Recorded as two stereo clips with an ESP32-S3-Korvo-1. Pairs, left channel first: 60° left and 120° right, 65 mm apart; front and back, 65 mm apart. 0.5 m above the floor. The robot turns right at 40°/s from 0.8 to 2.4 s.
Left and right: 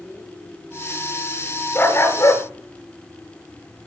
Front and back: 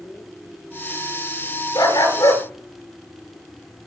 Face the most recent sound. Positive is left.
turn(degrees=30)